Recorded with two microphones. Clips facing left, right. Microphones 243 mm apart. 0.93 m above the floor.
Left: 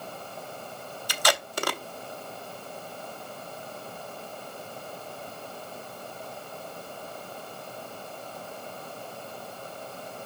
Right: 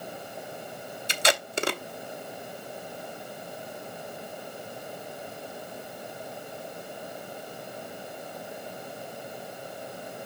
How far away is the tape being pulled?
About 0.6 m.